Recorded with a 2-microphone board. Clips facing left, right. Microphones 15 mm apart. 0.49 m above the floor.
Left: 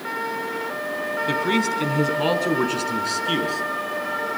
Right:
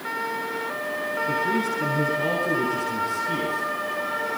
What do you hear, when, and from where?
1.3 s a man speaking: 60° left (ahead or behind), 4 m; by 3.6 s 80° left, 5.5 m